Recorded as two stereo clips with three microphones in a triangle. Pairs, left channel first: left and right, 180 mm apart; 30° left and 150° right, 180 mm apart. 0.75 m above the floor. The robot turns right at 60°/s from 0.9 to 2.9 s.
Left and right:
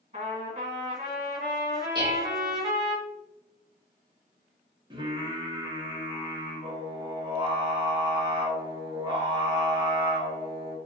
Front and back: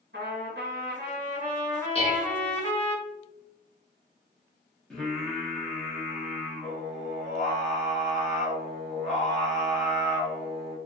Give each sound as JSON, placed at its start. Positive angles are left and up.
{"t": 0.1, "sound": "a trumpet", "azimuth_deg": -135, "distance_m": 1.5}
{"t": 1.9, "sound": "dishes clattering", "azimuth_deg": -25, "distance_m": 1.0}
{"t": 4.9, "sound": "singing", "azimuth_deg": -55, "distance_m": 0.9}